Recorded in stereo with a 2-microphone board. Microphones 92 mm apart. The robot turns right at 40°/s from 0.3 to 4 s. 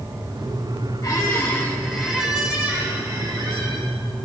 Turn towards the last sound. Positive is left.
turn(degrees=-100)